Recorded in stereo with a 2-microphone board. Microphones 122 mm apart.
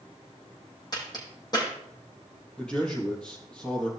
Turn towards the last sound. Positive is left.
turn(degrees=10)  # may be behind; listen again after turning